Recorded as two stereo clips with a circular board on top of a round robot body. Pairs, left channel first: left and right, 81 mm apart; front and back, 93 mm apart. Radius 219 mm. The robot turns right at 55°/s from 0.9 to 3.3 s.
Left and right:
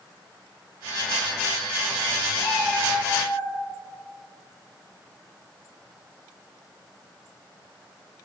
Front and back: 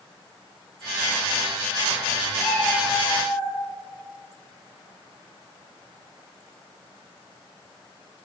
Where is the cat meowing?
80° left, 4 m; by 3.5 s 130° left, 4 m.